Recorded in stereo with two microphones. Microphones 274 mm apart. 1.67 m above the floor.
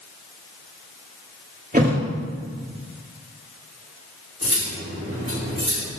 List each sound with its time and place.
1.7 s a thud: 30° right (ahead or behind), 1.8 m
4.4 s cutlery clinking: 45° right (ahead or behind), 2.5 m